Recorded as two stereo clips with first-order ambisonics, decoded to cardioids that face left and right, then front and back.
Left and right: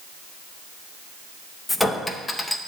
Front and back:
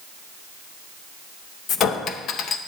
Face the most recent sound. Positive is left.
turn(degrees=10)